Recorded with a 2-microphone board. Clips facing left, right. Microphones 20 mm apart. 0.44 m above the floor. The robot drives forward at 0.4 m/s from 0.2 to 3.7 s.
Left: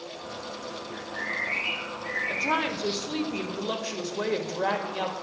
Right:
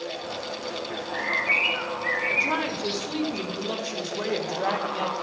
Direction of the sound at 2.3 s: 20° left (ahead or behind).